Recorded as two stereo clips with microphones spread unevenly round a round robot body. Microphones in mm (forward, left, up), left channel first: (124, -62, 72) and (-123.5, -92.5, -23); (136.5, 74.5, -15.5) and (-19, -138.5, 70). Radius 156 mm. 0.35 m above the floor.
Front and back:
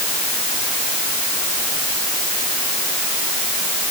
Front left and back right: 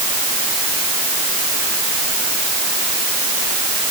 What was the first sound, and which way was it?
Only background noise.